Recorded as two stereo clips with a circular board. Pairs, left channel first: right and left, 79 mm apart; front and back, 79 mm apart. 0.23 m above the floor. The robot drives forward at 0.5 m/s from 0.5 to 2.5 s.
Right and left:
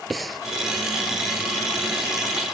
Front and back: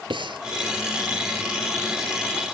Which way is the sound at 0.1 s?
Straight behind.